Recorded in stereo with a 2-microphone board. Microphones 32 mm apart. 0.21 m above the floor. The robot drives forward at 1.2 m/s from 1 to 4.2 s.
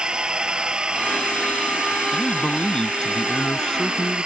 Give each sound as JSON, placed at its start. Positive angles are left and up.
{"t": 0.0, "sound": "a drone", "side_deg": -25}
{"t": 2.1, "sound": "a man speaking", "side_deg": 25}